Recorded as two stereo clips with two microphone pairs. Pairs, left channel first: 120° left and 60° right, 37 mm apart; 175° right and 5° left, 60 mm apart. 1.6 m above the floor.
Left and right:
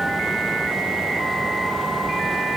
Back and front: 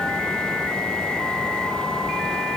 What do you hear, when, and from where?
Only background noise.